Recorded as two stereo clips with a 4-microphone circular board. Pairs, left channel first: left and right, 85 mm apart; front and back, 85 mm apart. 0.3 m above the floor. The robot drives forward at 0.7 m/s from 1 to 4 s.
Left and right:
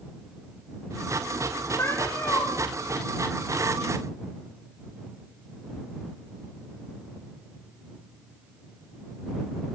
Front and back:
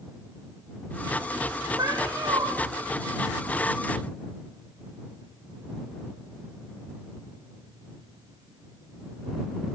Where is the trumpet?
No trumpet in this recording.